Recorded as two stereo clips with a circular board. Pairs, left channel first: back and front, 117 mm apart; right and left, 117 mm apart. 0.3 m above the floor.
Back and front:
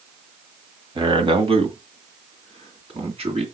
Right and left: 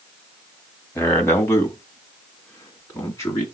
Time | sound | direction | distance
0.9 | a man speaking | 25° right | 1.8 m